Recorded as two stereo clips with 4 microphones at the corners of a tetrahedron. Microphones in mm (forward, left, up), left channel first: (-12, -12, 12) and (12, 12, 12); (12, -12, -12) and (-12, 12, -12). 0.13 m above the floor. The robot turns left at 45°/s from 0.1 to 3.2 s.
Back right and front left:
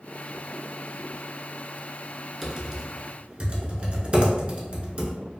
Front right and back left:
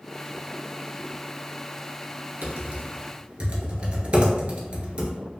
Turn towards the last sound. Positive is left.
turn(degrees=90)